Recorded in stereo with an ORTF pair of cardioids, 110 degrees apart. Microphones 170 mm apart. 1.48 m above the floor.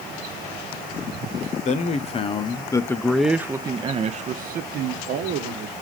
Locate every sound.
1.6 s a man speaking: 45° left, 1.1 m; by 5.7 s 80° right, 1.3 m